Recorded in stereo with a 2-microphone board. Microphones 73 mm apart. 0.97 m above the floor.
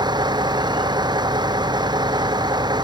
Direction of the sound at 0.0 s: 75° right (ahead or behind).